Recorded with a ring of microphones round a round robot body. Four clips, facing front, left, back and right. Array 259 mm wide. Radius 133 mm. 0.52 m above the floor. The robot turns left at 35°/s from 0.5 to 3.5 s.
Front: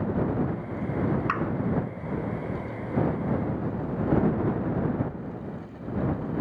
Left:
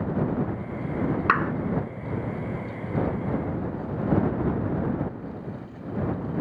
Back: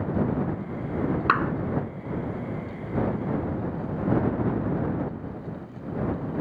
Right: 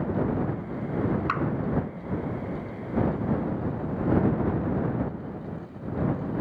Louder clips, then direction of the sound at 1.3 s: Left 4 dB, back 5 dB; 130° left.